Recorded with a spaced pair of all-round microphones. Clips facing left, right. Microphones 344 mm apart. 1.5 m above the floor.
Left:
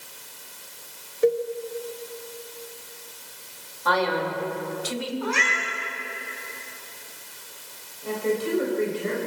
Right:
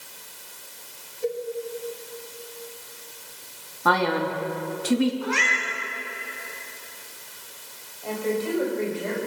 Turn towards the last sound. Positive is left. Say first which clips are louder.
# left 1 dB
turn(degrees=25)  # may be behind; listen again after turning